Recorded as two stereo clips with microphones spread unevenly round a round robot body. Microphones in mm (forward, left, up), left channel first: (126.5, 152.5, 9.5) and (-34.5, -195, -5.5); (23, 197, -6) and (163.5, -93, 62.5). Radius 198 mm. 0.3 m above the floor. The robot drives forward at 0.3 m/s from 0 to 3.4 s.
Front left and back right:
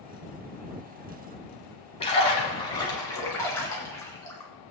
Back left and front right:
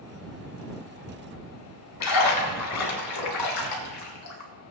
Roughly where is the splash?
Behind left.